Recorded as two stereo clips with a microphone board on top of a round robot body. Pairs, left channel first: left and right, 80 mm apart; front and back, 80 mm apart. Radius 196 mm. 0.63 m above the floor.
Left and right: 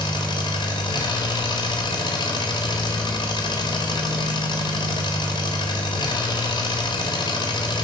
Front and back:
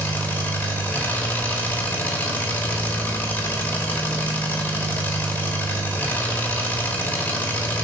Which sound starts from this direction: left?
An engine running, at 0.0 s.